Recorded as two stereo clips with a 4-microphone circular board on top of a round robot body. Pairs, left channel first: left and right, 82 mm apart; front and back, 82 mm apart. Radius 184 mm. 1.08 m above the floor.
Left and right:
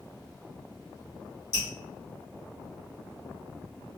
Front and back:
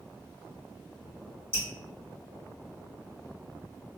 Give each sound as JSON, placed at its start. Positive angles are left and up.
{"t": 1.5, "sound": "dripping", "azimuth_deg": 115, "distance_m": 1.8}